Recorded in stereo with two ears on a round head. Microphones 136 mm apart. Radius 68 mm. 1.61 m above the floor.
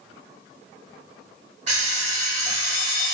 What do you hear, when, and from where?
1.7 s an alarm clock: 45° right (ahead or behind), 1.4 m